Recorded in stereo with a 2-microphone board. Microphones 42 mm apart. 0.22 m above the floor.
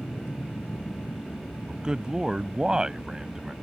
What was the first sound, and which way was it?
An aircraft, 35° left (ahead or behind).